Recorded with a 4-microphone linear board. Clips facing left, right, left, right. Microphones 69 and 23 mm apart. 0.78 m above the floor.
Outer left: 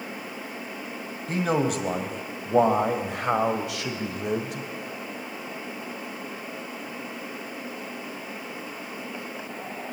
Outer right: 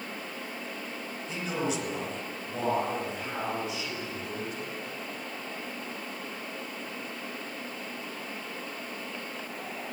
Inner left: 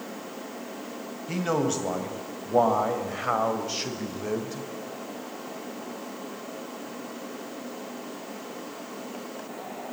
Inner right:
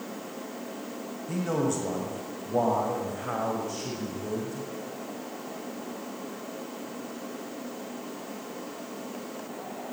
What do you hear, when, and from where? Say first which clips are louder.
1.3 s a man speaking: outer left 8 dB, inner left 2 dB; 50° left (ahead or behind), 4 m; by 4.7 s 75° left (ahead or behind), 3.5 m